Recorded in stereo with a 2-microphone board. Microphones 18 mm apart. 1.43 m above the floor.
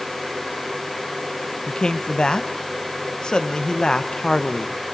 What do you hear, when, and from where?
1.7 s a man speaking: 55° left (ahead or behind), 1.4 m